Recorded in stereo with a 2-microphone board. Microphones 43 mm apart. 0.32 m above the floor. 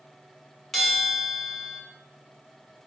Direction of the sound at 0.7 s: 5° left (ahead or behind).